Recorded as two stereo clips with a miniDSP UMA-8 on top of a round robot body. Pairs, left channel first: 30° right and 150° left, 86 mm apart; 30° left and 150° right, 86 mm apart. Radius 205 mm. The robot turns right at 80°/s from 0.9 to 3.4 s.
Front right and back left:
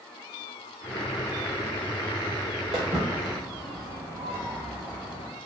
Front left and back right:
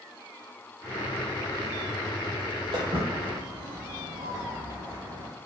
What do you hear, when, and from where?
2.7 s footsteps: straight behind, 0.7 m; by 5.3 s 135° left, 1.1 m